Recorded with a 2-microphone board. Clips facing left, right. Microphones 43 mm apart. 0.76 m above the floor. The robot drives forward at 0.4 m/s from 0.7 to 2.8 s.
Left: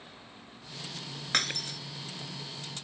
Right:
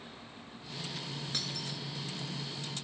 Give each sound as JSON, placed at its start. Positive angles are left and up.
{"t": 1.3, "sound": "breaking glass", "side_deg": 60}